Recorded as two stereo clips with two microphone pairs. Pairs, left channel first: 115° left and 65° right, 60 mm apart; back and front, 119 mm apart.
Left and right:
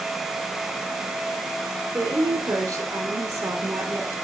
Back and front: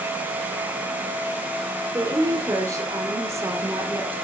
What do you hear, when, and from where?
1.9 s a woman speaking: 55° right, 5.5 m; by 4.2 s 70° right, 4.5 m